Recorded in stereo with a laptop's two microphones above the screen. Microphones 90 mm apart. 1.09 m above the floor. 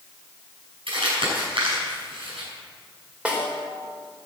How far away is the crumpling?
About 7 m.